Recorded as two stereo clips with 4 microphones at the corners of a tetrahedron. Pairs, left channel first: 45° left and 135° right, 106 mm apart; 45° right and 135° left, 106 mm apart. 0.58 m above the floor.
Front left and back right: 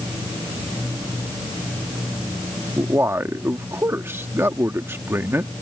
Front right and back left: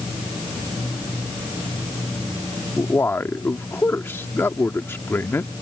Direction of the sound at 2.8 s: 90° right.